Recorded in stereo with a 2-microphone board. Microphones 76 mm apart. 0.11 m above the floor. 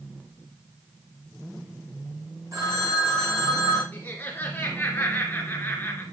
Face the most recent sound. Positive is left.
turn(degrees=25)  # may be behind; listen again after turning